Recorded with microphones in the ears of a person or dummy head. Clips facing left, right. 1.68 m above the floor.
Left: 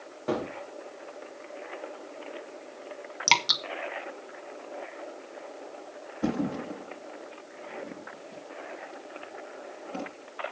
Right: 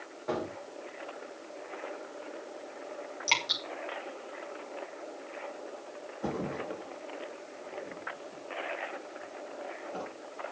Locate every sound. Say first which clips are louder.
0.3 s a gunshot: left 4 dB; 40° left (ahead or behind), 2.5 m
3.3 s dripping: left 9 dB; 45° left (ahead or behind), 1.2 m
6.2 s a thud: left 6 dB; 65° left (ahead or behind), 4.5 m